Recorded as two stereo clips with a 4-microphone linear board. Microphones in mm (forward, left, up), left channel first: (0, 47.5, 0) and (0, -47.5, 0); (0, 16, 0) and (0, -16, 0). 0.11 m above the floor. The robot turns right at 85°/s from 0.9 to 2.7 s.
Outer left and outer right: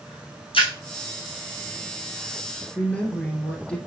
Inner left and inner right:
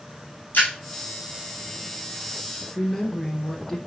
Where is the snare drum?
No snare drum in this recording.